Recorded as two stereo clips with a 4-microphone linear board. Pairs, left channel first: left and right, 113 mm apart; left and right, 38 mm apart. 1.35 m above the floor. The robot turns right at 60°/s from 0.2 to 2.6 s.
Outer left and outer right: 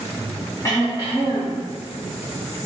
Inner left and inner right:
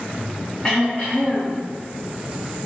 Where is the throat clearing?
30° left, 2.5 m; by 1.6 s 90° left, 2.5 m.